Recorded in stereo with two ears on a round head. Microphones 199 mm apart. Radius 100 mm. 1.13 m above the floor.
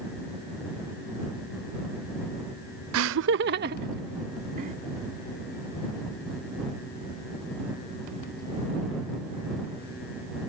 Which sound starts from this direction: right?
Laughter, at 2.9 s.